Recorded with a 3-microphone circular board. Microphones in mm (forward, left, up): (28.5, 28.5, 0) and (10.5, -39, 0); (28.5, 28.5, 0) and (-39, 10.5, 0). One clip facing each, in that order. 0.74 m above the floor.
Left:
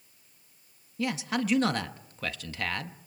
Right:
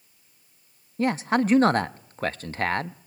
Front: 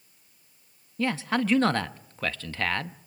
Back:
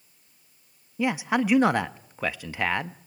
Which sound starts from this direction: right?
A man speaking, at 1.0 s.